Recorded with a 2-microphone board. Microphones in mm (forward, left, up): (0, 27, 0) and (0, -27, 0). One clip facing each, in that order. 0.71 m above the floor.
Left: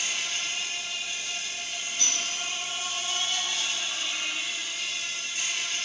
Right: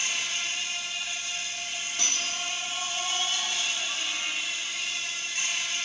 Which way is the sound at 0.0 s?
55° right (ahead or behind).